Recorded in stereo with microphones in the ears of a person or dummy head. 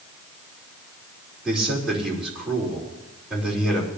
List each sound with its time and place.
1.4 s a man speaking: centre (ahead or behind), 4 m